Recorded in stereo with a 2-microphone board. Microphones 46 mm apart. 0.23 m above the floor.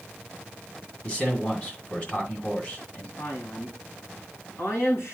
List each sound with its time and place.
1.0 s a man speaking: 30° left (ahead or behind), 1.9 m
3.2 s a man speaking: 65° left (ahead or behind), 2.5 m